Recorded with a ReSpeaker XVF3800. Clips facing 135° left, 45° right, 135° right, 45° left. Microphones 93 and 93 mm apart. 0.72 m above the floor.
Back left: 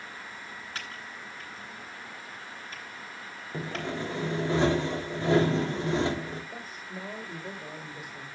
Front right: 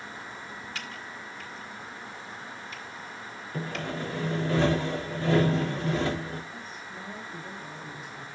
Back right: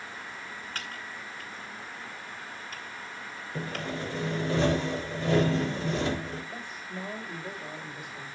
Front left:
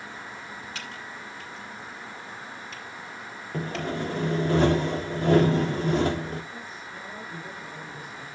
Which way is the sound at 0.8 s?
175° right.